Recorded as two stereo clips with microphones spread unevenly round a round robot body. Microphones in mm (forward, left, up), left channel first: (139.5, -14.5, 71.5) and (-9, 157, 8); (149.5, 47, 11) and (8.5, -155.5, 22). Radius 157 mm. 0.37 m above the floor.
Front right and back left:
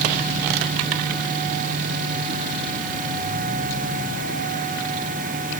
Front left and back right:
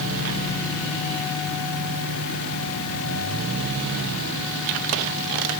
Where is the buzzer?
I don't hear a buzzer.